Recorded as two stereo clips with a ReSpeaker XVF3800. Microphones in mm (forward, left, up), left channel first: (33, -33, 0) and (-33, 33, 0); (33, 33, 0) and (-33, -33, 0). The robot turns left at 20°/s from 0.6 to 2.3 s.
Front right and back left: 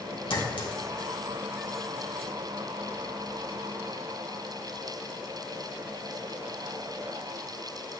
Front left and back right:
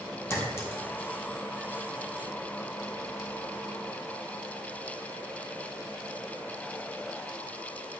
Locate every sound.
0.3 s a clink: 15° right, 2.5 m; by 1.5 s 35° right, 2.5 m